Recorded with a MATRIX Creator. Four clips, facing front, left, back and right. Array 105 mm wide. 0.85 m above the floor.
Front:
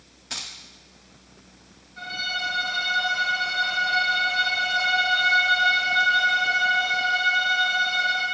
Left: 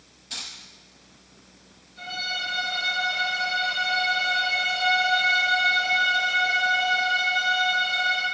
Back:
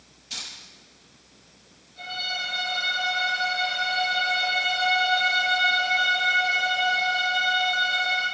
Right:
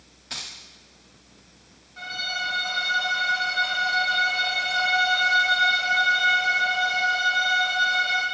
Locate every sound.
0.3 s keys jangling: 35° right, 1.3 m
2.0 s a violin: 65° right, 5 m